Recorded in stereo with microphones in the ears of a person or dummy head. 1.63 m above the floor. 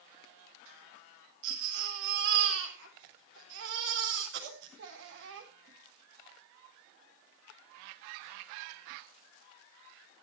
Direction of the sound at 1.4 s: 65° right (ahead or behind).